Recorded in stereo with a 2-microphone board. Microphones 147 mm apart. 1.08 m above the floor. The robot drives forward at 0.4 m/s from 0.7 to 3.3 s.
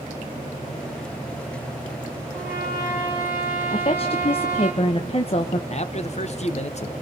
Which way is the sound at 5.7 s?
50° left (ahead or behind).